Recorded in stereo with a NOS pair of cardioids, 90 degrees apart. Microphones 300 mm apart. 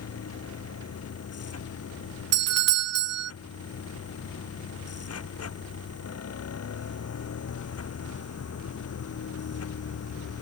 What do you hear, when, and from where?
0.0 s a machine running: 55° left
2.3 s a doorbell: 55° right